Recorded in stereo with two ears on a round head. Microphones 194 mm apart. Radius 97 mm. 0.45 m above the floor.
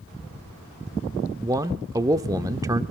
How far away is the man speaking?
About 0.8 m.